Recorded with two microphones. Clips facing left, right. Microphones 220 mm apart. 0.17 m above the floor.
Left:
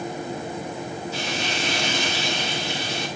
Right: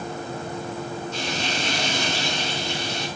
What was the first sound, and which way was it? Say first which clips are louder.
Frying: even; 10° left (ahead or behind).